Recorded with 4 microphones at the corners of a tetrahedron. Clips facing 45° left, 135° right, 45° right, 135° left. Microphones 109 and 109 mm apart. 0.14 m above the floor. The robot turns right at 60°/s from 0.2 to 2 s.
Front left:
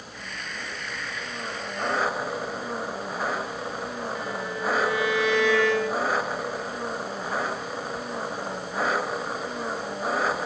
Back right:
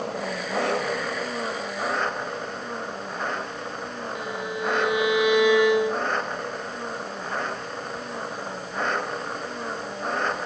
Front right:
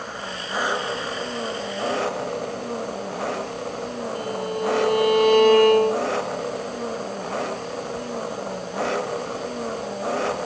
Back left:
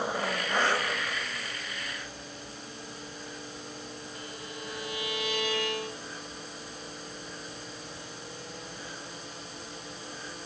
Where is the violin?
65° right.